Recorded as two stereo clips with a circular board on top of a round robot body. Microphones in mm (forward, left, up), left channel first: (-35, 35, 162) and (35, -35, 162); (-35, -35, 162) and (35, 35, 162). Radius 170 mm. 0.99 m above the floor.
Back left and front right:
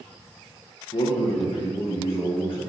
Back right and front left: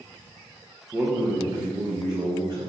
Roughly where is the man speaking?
Behind left.